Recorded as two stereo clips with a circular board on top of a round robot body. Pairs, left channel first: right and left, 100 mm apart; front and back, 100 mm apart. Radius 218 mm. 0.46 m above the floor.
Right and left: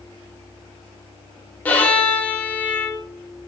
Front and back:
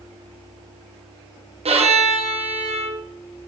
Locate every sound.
1.6 s a violin: 165° right, 1.0 m